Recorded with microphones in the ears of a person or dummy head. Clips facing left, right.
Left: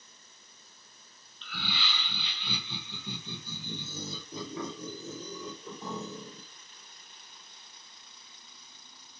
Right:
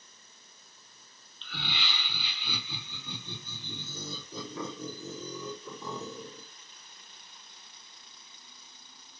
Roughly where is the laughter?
Right.